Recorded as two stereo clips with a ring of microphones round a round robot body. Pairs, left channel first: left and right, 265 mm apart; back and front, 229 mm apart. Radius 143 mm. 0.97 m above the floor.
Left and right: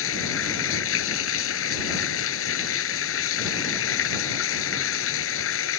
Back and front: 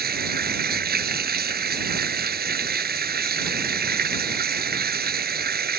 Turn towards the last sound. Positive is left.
turn(degrees=50)